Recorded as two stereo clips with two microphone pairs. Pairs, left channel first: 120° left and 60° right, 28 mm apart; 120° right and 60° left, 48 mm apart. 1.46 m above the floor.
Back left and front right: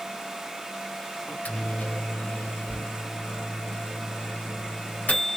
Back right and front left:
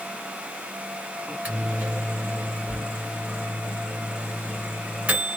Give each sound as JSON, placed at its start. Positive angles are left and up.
{"t": 1.3, "sound": "a microwave", "azimuth_deg": 125, "distance_m": 1.4}